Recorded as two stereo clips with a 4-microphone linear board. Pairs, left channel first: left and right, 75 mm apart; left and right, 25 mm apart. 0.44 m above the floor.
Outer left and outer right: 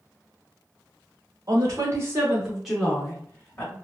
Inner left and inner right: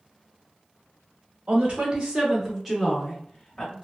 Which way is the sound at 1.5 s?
45° right (ahead or behind).